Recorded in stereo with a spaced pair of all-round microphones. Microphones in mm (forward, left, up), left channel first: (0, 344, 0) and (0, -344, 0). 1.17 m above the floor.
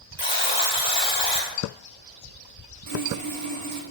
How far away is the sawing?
About 1.0 m.